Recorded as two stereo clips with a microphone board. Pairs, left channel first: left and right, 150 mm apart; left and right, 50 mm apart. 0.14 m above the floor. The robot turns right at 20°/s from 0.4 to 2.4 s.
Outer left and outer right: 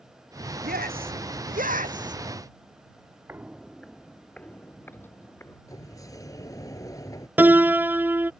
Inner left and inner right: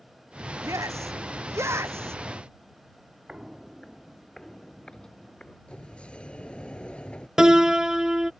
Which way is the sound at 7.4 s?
15° right (ahead or behind).